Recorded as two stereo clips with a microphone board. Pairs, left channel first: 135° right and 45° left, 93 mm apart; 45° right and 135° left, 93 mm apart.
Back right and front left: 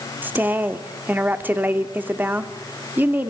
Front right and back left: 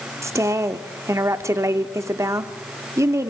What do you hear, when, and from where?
0.2 s a woman speaking: 105° left, 0.9 m